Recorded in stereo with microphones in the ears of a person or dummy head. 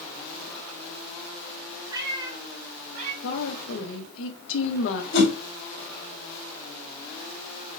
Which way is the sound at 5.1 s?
70° left (ahead or behind).